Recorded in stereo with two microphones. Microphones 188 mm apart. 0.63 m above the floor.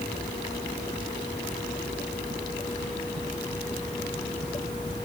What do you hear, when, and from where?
Only background noise.